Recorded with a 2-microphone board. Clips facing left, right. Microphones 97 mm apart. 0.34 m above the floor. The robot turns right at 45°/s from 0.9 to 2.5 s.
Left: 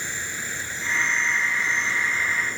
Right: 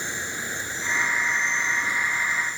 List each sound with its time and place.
0.0 s an insect: 20° right; by 2.6 s 50° left